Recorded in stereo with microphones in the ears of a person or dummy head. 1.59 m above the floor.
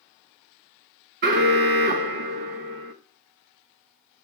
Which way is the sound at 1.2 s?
50° right (ahead or behind).